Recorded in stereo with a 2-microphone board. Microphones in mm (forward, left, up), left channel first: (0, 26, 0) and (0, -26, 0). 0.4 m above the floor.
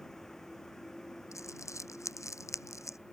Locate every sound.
0.0 s a vehicle: 10° left (ahead or behind)
1.3 s crumpling: 85° left